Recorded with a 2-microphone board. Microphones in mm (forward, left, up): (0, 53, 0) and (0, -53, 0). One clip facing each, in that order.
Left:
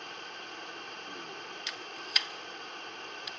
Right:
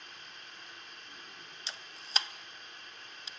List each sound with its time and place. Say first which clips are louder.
0.0 s running water: left 9 dB; 65° left (ahead or behind), 1.5 m
1.7 s a camera shutter: left 6 dB; 30° right (ahead or behind), 0.6 m